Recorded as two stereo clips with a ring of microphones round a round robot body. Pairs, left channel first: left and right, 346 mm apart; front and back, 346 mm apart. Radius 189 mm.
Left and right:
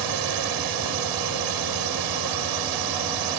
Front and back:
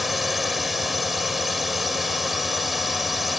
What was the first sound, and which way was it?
A drone, 90° right.